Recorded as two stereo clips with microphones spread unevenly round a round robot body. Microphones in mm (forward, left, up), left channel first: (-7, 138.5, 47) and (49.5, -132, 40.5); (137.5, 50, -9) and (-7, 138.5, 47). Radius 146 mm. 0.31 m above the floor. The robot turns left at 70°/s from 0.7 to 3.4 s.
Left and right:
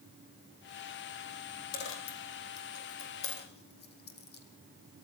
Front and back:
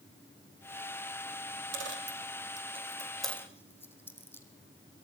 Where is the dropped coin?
165° left, 4 m; by 4.4 s 45° left, 4 m.